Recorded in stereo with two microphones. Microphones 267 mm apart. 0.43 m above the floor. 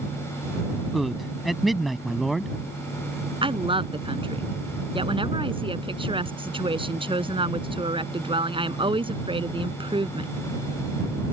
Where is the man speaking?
Centre (ahead or behind).